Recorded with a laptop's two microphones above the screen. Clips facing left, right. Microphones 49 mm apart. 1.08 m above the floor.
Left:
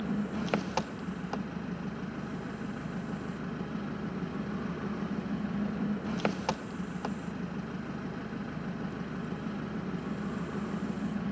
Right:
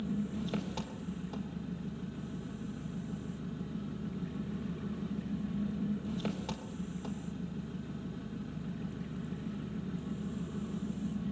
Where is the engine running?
70° left (ahead or behind), 0.9 m.